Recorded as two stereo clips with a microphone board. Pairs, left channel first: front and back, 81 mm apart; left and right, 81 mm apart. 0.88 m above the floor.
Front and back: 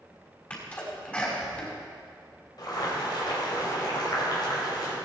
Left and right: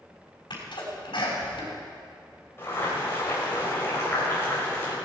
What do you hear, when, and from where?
0.5 s a sneeze: 70° left, 5.5 m
2.6 s boiling: 30° left, 5 m